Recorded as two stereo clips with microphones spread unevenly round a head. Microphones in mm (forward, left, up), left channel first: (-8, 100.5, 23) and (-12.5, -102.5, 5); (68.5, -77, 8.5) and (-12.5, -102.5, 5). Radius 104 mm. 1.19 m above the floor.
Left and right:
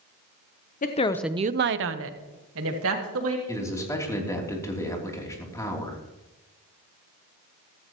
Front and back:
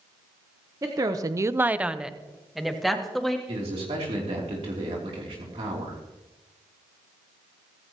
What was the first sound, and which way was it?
A woman speaking, 140° left.